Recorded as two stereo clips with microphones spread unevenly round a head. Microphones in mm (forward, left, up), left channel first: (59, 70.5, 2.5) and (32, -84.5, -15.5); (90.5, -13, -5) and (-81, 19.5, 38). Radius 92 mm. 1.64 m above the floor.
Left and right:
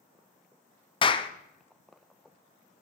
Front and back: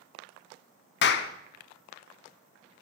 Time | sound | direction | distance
1.0 | a clap | 25° left | 0.7 m